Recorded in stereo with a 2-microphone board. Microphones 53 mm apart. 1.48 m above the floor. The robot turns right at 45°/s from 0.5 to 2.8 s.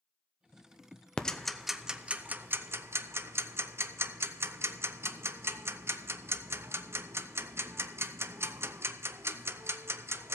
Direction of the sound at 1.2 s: 15° left (ahead or behind).